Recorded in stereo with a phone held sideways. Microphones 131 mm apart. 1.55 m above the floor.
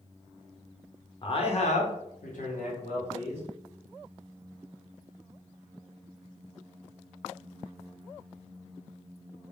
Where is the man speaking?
40° left (ahead or behind), 0.7 m; by 3.4 s 65° left (ahead or behind), 1.2 m.